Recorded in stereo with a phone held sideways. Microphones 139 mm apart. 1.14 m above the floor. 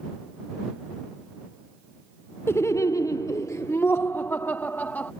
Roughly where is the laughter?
Centre.